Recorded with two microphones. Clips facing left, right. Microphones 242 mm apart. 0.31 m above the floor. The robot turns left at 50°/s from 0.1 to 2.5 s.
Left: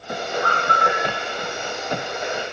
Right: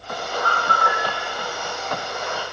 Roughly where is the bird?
Left.